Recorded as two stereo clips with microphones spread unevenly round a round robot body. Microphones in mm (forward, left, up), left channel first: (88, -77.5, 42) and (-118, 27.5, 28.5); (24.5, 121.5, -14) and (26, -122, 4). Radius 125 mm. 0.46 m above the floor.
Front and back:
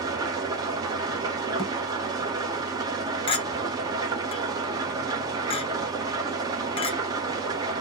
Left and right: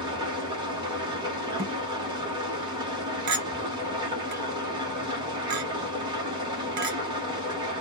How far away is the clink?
About 0.7 m.